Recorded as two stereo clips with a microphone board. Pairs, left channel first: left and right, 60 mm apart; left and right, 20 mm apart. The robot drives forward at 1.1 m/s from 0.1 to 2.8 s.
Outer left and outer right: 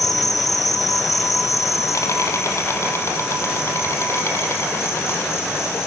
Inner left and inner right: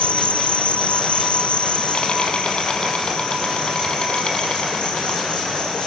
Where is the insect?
80° left, 3 m; by 5.9 s 50° left (ahead or behind), 4 m.